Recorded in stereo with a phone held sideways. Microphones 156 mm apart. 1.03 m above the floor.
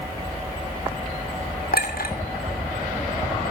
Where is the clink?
80° left, 2.5 m.